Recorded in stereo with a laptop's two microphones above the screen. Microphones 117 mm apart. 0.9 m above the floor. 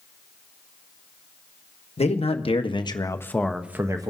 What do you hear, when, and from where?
2.0 s a man speaking: 65° left (ahead or behind), 1.0 m; by 4.1 s 35° right (ahead or behind), 0.6 m